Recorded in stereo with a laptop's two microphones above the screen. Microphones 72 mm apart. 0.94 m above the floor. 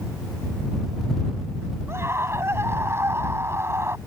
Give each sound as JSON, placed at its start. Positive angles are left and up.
{"t": 1.9, "sound": "a scream", "side_deg": -35}